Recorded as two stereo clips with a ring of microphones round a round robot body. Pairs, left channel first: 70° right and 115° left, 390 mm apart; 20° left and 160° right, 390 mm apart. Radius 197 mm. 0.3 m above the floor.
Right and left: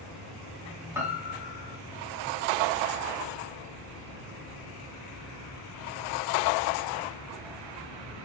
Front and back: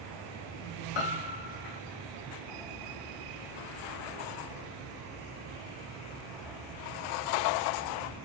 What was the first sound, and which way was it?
A piano, 30° left.